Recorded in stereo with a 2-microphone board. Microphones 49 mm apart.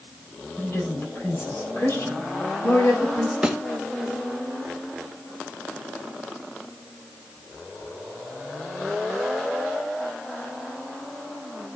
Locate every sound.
0.6 s a woman speaking: 50° left (ahead or behind), 4 m
3.4 s a thud: 15° right (ahead or behind), 1.9 m